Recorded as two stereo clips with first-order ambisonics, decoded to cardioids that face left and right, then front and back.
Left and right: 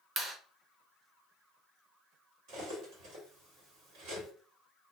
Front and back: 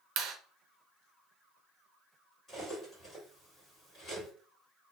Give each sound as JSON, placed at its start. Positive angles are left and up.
{"t": 0.2, "sound": "a clap", "azimuth_deg": -155, "distance_m": 0.6}
{"t": 2.5, "sound": "cutlery clinking", "azimuth_deg": -75, "distance_m": 1.4}